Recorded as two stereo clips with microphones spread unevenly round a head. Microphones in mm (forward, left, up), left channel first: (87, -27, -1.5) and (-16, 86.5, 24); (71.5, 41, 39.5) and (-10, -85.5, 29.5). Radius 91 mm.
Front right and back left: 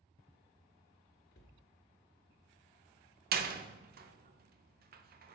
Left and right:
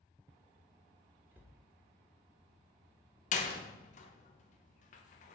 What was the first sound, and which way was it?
A cupboard door, 45° right.